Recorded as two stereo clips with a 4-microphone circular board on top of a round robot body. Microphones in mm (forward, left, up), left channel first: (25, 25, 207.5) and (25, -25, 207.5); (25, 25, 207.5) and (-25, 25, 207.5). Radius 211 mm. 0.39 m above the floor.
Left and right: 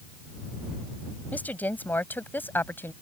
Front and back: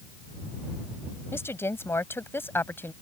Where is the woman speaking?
35° left; by 2.9 s 45° left.